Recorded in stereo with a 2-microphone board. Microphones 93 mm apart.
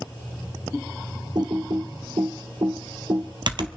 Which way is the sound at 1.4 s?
55° right (ahead or behind).